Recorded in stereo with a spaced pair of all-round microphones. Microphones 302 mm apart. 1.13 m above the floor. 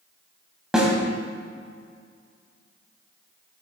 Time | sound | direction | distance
0.7 | a snare drum | centre (ahead or behind) | 1.9 m